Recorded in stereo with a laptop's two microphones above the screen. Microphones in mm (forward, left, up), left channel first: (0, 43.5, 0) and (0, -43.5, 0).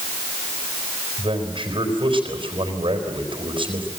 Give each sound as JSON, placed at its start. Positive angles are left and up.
{"t": 1.2, "sound": "a man speaking", "side_deg": -75, "distance_m": 4.0}